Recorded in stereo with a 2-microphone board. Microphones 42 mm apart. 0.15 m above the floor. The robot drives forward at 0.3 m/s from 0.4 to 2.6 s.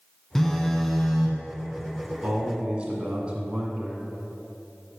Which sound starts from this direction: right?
A man speaking, at 2.2 s.